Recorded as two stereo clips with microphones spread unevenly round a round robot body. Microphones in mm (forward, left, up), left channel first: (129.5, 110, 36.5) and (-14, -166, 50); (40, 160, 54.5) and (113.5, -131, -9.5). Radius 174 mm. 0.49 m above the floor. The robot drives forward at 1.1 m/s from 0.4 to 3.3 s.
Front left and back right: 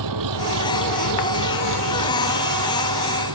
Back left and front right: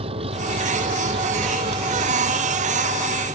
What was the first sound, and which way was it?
An engine running, 150° right.